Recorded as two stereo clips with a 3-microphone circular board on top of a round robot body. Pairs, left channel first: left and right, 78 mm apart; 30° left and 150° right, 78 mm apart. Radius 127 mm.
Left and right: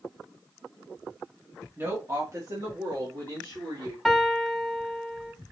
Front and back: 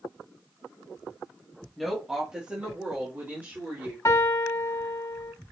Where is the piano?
5° right, 1.4 m.